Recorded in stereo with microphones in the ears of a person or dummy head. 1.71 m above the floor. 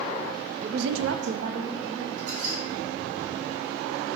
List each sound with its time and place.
0.6 s a woman speaking: 45° right (ahead or behind), 0.7 m; by 2.1 s 20° right (ahead or behind), 1.5 m
2.2 s a squeak: 45° right (ahead or behind), 2.5 m